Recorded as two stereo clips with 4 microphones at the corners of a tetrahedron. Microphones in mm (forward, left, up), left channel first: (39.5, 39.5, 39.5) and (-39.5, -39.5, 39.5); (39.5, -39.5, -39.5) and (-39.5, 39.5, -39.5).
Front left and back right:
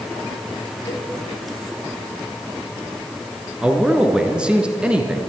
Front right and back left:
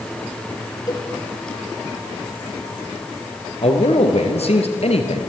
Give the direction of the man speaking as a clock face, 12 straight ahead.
2 o'clock.